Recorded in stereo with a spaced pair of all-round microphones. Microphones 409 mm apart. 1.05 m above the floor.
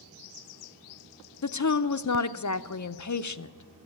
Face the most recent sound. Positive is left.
turn(degrees=45)  # may be behind; listen again after turning